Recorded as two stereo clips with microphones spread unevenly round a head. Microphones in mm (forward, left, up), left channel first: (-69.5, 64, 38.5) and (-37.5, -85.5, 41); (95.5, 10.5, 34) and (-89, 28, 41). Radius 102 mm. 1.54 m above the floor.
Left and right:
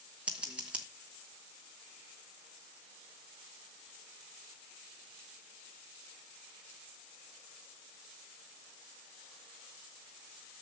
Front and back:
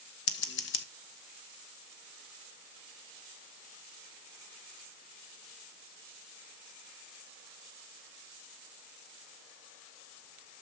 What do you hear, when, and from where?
0.3 s scissors: 5° left, 0.9 m